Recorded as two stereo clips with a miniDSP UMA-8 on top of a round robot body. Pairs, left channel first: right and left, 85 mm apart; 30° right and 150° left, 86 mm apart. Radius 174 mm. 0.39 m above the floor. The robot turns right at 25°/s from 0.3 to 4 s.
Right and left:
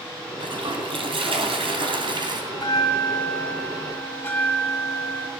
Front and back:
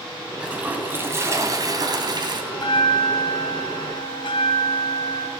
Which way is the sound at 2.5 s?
65° right.